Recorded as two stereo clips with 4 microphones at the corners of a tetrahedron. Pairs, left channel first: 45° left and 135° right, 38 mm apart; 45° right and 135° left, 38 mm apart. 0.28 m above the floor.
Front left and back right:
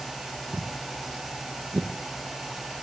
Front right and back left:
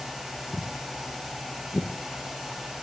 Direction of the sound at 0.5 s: 95° right.